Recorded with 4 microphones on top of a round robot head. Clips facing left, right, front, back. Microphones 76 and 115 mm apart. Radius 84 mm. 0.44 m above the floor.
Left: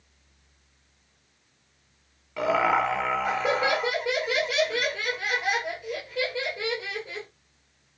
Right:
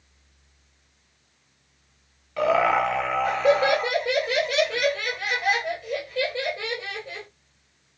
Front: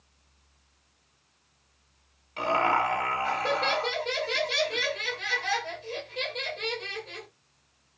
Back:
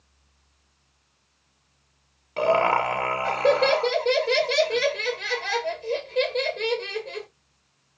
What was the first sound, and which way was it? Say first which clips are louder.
Laughter: right 3 dB, back 5 dB; 170° left.